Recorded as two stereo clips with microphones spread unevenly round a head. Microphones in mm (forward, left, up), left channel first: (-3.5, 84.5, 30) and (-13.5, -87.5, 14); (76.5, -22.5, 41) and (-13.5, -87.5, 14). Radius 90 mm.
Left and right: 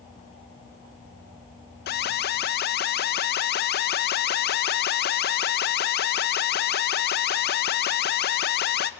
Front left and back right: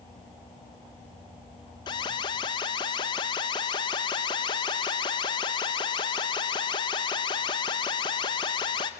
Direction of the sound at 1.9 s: 95° left.